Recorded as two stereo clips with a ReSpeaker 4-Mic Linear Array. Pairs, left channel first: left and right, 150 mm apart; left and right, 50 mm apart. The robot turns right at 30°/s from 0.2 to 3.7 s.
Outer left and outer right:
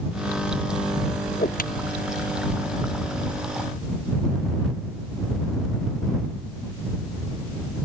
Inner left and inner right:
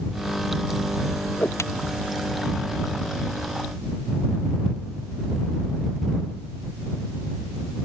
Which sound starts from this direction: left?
A whoosh, at 1.3 s.